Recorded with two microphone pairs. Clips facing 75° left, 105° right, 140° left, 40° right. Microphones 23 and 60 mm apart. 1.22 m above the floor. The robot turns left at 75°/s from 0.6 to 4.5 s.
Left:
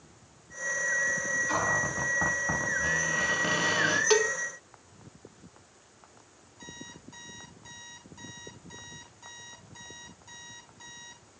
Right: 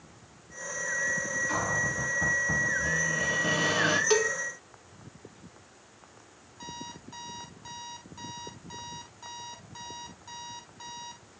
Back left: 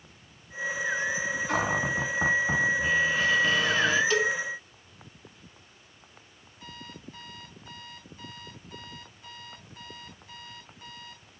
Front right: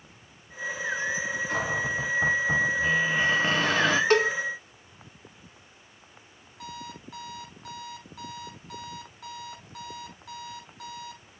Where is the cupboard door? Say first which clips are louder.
Even, back left 2 dB; 155° left, 3 m; by 4.0 s 30° right, 3 m.